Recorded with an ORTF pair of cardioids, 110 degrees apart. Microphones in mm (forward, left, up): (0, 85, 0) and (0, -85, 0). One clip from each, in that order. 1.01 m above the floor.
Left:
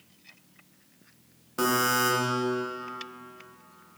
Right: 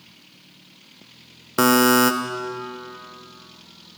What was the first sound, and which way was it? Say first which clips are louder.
A buzzer: right 8 dB; 55° right.